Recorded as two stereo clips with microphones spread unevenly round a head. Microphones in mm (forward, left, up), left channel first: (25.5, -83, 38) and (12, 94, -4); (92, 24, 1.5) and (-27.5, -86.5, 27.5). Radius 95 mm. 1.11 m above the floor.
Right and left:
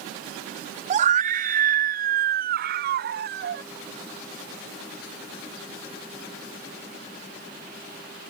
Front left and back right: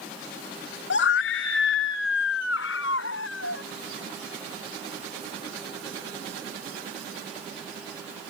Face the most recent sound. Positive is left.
turn(degrees=60)